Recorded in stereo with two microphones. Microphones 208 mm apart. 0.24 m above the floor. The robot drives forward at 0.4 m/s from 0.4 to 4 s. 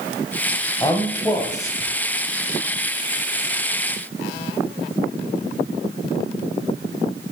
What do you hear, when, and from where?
0.8 s a man speaking: 20° left (ahead or behind), 0.9 m; by 1.9 s 15° left (ahead or behind), 1.1 m